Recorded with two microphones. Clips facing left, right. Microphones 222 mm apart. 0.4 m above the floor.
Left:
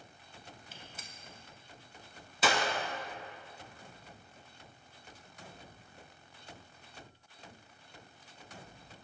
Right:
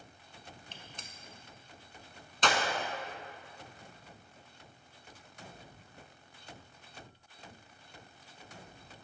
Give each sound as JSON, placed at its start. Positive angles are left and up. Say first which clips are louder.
{"t": 0.7, "sound": "a gunshot", "louder": "even", "side_deg": 5, "distance_m": 0.7}